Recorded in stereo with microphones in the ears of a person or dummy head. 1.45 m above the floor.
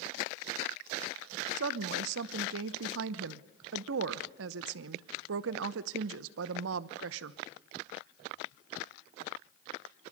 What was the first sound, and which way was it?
A woman speaking, 70° right (ahead or behind).